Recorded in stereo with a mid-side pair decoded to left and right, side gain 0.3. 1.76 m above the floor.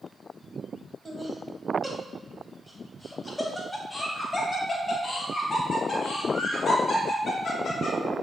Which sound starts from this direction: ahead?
Laughter, at 1.1 s.